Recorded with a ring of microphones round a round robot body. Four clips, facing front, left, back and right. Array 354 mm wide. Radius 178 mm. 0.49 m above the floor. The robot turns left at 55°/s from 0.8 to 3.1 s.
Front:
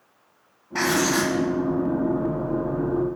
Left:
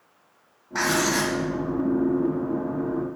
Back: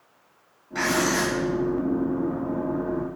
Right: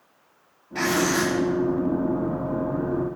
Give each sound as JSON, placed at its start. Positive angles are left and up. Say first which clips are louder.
{"t": 0.8, "sound": "writing", "louder": "right 1 dB, front 2 dB", "azimuth_deg": 45, "distance_m": 0.7}